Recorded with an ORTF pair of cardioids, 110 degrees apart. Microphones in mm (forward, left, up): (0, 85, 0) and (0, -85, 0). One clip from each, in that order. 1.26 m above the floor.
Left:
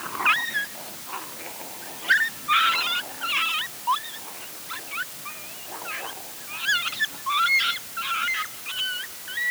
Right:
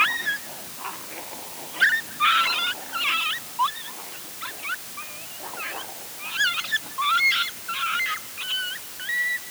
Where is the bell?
No bell in this recording.